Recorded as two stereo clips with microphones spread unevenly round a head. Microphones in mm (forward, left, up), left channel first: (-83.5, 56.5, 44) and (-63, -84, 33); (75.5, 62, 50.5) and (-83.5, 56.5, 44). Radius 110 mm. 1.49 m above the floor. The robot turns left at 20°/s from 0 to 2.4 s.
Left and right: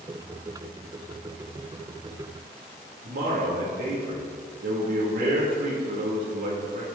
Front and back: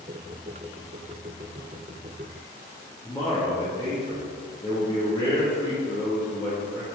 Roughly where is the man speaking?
Right.